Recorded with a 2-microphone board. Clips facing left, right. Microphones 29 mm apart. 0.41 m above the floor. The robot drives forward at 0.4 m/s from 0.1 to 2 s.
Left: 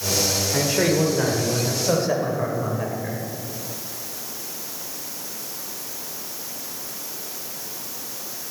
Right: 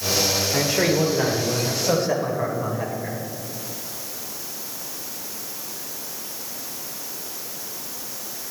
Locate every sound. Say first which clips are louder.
0.5 s a man speaking: left 1 dB; centre (ahead or behind), 1.4 m